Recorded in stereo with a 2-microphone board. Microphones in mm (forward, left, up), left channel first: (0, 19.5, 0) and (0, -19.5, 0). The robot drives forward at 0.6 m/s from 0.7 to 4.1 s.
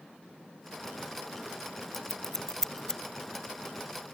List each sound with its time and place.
1.9 s scissors: 10° left (ahead or behind); by 3.0 s 15° left (ahead or behind)